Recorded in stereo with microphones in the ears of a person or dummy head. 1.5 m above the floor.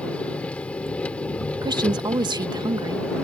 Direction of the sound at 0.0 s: 5° left (ahead or behind).